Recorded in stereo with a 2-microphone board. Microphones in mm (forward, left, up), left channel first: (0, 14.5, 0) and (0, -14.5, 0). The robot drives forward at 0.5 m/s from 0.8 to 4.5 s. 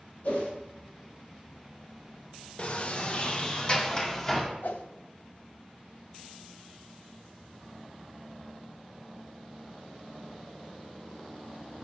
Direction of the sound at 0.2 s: 65° left (ahead or behind).